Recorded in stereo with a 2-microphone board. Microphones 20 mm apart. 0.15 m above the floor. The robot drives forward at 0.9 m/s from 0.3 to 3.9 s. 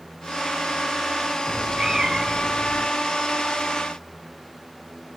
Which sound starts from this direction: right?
A cat meowing, at 1.5 s.